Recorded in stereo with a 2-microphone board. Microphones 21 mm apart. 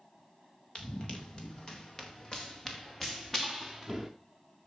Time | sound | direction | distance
0.8 | running footsteps | 45° left (ahead or behind) | 3.5 m